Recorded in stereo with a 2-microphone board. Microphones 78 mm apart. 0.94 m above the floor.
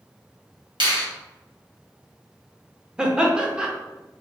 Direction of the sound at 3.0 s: 10° right (ahead or behind).